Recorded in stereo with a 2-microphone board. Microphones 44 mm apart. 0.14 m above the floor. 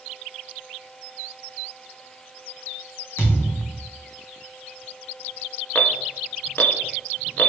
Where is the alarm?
45° left (ahead or behind), 1.0 m.